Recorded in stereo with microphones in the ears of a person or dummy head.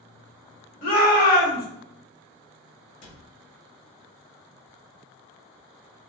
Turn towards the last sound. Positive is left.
turn(degrees=60)  # may be behind; listen again after turning